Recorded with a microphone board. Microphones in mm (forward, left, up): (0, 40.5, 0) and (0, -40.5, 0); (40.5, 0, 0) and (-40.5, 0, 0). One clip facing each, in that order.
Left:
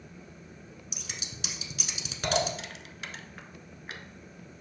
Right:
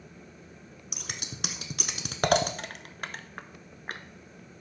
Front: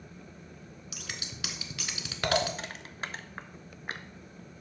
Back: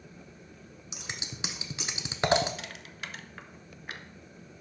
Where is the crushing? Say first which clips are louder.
Right 3 dB, front 3 dB; 50° right, 0.5 m.